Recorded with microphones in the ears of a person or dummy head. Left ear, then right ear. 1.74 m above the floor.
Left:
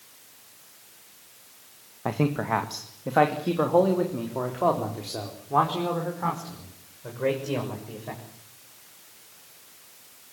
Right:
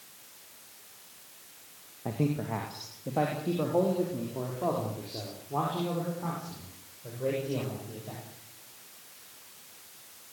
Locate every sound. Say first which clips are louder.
2.0 s a man speaking: left 6 dB; 45° left (ahead or behind), 1.7 m; by 8.2 s 60° left (ahead or behind), 7 m